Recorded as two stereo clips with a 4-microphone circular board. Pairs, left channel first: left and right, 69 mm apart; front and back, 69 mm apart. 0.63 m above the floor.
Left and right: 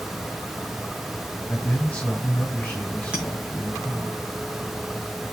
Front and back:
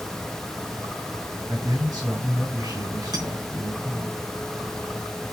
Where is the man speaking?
155° left, 3.5 m.